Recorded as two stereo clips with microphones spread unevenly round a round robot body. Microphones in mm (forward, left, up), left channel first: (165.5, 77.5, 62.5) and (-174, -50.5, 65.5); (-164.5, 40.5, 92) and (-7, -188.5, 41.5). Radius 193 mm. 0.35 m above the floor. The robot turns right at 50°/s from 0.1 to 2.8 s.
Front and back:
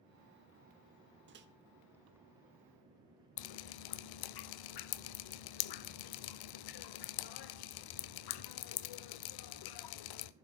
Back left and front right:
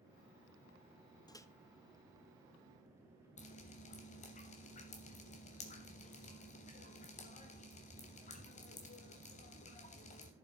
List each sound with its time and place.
1.3 s a microwave: 155° right, 0.9 m; by 1.5 s 145° right, 0.9 m
3.4 s dripping: 55° left, 0.5 m